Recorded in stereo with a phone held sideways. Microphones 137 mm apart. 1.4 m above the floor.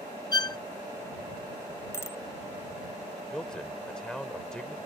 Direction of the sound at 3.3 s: 5° left (ahead or behind).